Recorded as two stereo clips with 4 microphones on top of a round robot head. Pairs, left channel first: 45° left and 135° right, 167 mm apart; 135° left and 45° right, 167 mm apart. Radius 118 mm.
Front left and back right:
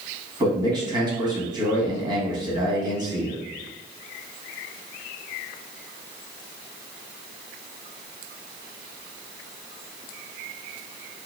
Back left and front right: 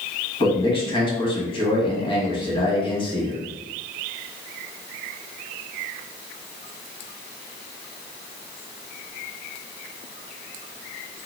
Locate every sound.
0.4 s a man speaking: 170° left, 1.7 m